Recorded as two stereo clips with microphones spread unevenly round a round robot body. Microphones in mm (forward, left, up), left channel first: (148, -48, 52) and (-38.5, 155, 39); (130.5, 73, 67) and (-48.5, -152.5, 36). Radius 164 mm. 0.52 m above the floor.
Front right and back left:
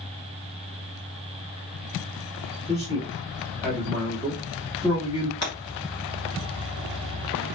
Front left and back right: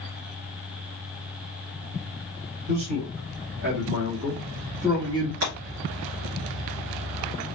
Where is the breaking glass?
90° right, 2.5 m.